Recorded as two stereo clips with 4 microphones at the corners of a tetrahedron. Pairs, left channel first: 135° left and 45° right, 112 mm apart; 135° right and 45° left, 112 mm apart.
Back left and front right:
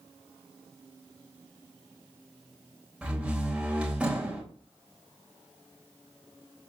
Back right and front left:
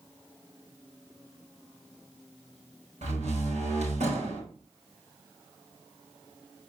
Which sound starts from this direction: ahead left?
A door slam, at 3.0 s.